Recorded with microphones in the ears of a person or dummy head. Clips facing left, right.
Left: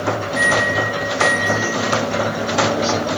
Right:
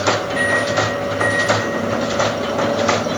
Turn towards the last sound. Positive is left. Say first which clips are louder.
# right 1 dB
turn(degrees=0)  # may be behind; listen again after turning